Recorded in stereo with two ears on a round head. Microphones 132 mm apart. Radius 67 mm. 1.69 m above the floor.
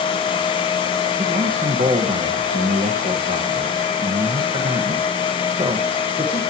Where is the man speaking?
35° right (ahead or behind), 2.0 m.